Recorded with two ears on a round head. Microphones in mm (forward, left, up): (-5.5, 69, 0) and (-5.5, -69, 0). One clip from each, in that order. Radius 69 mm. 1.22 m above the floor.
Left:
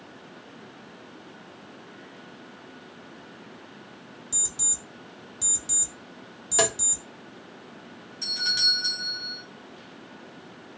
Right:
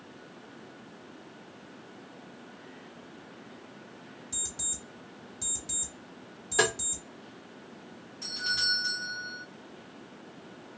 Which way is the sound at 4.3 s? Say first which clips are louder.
Left 7 dB; 15° left (ahead or behind).